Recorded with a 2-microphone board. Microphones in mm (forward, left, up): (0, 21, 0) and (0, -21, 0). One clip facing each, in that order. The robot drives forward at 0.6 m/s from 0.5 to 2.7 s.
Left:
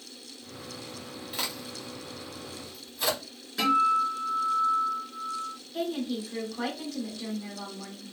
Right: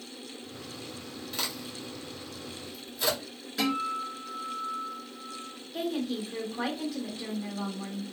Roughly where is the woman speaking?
Centre.